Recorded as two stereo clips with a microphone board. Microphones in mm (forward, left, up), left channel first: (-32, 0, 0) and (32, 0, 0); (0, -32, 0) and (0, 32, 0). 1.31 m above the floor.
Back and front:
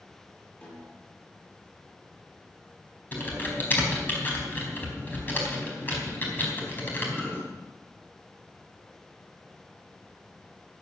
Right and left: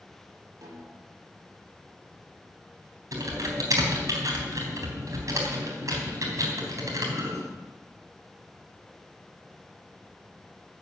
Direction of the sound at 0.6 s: 115° left.